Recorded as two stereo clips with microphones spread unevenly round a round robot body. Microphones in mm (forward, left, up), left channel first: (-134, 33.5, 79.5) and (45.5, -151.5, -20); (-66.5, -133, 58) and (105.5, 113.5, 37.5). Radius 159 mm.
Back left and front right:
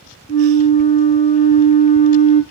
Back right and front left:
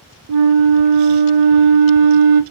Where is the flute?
65° left, 0.6 m.